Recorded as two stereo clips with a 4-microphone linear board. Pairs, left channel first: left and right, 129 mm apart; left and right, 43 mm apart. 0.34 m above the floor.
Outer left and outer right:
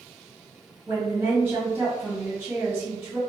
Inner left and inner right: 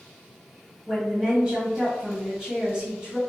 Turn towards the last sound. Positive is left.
turn(degrees=-15)  # may be behind; listen again after turning